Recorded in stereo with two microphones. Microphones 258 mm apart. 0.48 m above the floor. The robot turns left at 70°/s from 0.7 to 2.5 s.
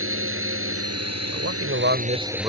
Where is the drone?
55° right; by 2.5 s straight behind.